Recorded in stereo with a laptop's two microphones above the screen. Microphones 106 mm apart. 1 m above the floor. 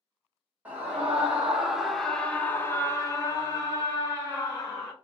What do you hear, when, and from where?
0.7 s a scream: 10° right (ahead or behind), 1.1 m; by 4.9 s 30° left (ahead or behind), 1.3 m